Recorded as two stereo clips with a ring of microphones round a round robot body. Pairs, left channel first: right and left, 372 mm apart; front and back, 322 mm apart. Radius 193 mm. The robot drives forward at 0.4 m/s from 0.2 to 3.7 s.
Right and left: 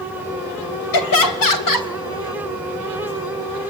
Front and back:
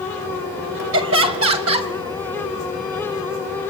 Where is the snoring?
No snoring in this recording.